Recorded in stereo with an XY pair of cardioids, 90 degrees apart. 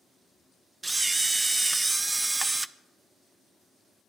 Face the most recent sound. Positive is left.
turn(degrees=-20)